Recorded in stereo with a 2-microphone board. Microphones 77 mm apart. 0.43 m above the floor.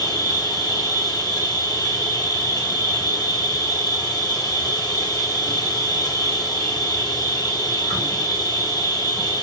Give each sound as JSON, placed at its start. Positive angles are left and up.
{"t": 0.0, "sound": "an insect", "side_deg": 60, "distance_m": 1.2}